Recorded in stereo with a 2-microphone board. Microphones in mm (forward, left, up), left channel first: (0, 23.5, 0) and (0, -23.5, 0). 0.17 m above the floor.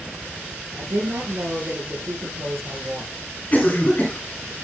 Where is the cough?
35° left (ahead or behind), 2 m.